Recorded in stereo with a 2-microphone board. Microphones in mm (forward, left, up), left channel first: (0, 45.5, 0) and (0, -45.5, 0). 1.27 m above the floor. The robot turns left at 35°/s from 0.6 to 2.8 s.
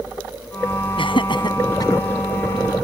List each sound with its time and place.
1.0 s laughter: 75° left (ahead or behind); by 2.0 s 35° left (ahead or behind)